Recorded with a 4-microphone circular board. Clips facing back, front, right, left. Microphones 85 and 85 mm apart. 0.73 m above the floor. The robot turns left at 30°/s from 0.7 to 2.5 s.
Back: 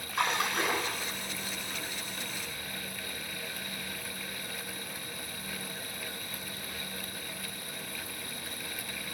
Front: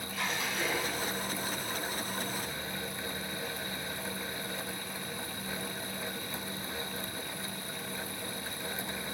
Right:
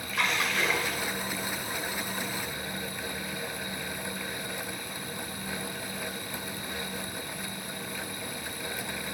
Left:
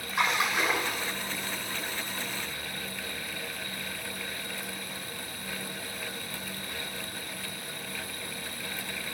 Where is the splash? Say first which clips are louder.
Back 6 dB, left 2 dB; 165° left, 2 m; by 1.1 s 150° left, 2 m.